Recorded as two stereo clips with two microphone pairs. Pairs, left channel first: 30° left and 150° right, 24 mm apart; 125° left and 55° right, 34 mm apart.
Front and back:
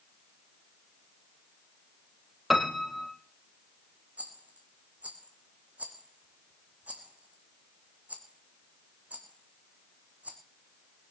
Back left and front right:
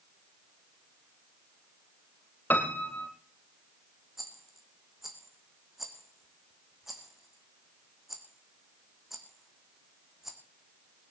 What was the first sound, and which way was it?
A piano, 130° left.